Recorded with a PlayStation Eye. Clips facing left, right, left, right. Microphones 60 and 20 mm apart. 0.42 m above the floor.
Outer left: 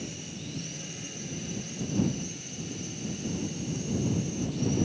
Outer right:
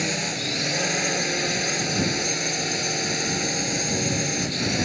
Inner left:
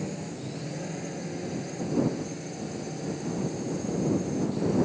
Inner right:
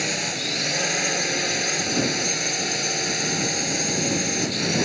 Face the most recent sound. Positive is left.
turn(degrees=-80)